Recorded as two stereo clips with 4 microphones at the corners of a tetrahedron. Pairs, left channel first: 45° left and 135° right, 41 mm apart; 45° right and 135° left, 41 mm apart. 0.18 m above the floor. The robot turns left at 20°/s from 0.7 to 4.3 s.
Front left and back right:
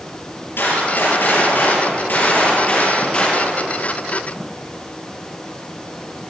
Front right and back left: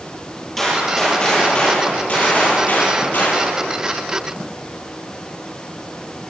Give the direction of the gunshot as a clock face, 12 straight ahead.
11 o'clock.